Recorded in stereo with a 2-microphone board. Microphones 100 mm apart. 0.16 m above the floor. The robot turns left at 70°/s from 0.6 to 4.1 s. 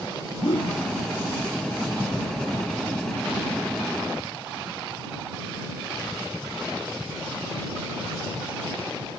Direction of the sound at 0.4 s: 70° left (ahead or behind).